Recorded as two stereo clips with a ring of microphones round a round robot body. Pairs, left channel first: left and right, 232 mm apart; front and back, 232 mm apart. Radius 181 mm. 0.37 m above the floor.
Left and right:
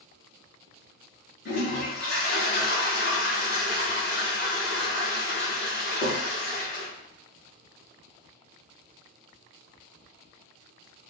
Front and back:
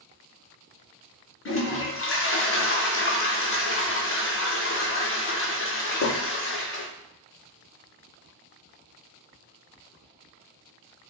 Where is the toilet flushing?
35° left, 0.7 m.